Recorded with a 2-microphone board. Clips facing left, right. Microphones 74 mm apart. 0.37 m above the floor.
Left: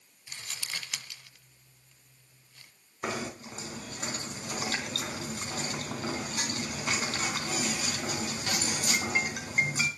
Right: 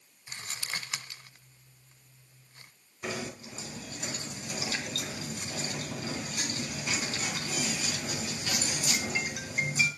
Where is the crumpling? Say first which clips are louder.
Right 2 dB; 35° right (ahead or behind), 1.3 m.